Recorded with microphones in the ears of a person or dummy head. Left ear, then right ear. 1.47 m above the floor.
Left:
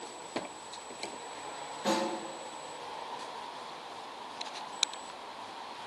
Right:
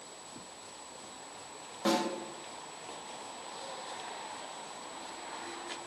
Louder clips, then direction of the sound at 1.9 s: Even; 20° right (ahead or behind).